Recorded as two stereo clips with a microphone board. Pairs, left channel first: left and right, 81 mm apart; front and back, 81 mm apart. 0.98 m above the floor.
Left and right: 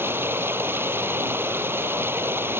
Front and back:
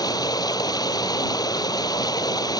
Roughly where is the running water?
Ahead right.